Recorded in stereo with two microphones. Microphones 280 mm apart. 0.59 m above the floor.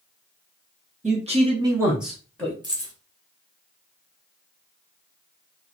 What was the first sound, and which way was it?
A man speaking, 25° right (ahead or behind).